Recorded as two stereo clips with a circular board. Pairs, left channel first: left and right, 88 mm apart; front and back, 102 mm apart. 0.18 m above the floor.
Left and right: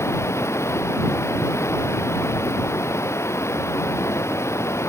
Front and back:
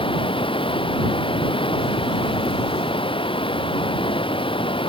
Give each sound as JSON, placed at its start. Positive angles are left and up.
{"t": 0.0, "sound": "running water", "azimuth_deg": 30}